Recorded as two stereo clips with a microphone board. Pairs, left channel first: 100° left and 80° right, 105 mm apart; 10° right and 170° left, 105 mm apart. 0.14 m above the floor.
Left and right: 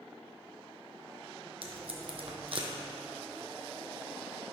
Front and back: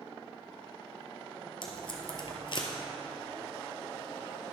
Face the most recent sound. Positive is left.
turn(degrees=-50)